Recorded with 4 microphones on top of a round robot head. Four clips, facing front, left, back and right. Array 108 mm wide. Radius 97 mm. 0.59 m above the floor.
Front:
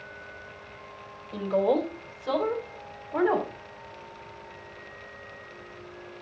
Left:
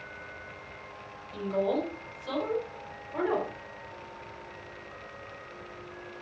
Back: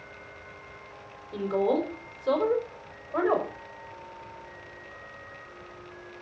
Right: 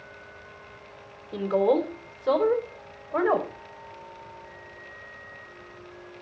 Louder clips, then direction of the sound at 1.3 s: Right 6 dB, front 1 dB; 95° right.